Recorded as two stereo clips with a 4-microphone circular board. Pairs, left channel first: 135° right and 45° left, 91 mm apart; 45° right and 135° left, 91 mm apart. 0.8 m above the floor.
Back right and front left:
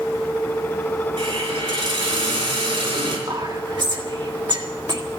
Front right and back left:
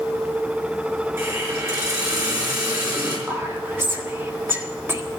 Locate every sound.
1.2 s a hiss: 75° left, 5 m
3.3 s whispering: 70° left, 1.5 m